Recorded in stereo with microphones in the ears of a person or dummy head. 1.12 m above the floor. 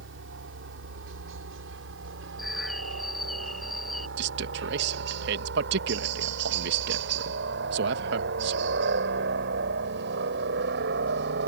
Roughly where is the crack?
I don't hear a crack.